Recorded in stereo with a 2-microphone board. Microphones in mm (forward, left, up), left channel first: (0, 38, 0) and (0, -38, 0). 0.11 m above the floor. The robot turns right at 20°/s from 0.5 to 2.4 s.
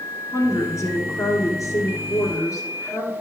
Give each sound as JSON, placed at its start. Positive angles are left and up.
{"t": 0.3, "sound": "a woman speaking", "azimuth_deg": 55, "distance_m": 2.0}